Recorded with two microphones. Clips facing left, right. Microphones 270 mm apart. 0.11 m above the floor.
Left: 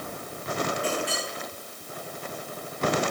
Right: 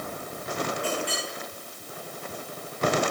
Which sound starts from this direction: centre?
A clink, at 0.8 s.